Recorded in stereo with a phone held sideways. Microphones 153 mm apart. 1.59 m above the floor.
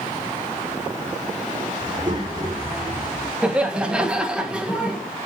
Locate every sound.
1.8 s a child speaking: 30° right (ahead or behind), 3.5 m; by 3.3 s 40° right (ahead or behind), 2.5 m
3.4 s laughter: 5° right (ahead or behind), 1.8 m